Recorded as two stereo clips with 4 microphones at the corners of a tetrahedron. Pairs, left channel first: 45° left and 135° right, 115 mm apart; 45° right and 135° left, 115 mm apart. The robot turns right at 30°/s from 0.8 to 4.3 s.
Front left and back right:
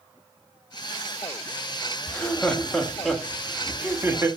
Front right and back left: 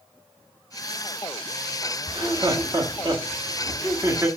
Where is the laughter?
110° left, 1.3 m; by 4.3 s 175° left, 1.3 m.